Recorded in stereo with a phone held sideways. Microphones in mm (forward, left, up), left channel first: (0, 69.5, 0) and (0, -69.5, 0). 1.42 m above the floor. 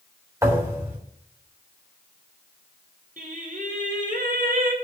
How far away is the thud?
About 3.5 m.